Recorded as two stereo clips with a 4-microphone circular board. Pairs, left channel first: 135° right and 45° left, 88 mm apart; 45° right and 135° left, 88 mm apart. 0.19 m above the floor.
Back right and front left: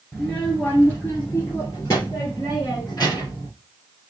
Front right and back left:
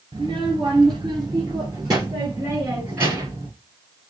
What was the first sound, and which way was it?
A child speaking, 145° left.